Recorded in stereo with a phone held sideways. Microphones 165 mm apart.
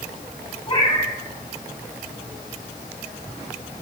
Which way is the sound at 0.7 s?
30° left (ahead or behind).